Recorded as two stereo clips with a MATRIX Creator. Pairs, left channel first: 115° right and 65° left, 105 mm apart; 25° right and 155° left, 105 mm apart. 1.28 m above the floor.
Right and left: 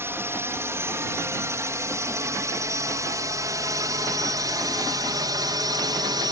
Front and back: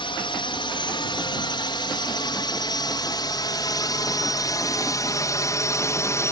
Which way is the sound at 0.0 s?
5° left.